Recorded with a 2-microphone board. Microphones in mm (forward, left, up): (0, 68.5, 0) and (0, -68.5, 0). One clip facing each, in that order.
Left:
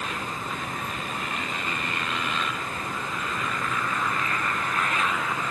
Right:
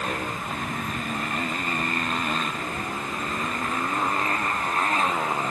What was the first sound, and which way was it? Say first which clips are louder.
A motorcycle: right 3 dB; 45° right (ahead or behind).